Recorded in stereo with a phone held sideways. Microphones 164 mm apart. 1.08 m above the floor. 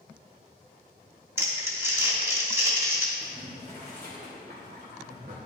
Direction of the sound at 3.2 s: 75° right (ahead or behind).